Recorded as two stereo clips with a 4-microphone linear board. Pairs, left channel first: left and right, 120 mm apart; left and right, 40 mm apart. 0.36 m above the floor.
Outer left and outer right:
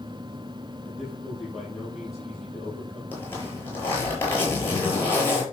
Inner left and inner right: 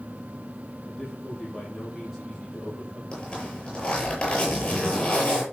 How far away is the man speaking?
About 9 m.